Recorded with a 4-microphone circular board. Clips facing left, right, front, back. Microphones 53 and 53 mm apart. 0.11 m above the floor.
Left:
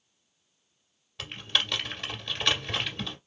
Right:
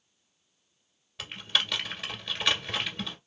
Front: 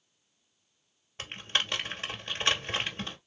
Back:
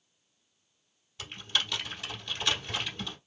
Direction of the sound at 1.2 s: 5° right.